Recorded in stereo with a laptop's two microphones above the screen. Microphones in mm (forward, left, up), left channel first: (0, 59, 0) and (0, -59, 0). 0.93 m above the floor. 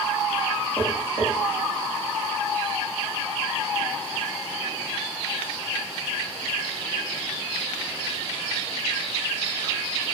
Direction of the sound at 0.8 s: 10° left (ahead or behind).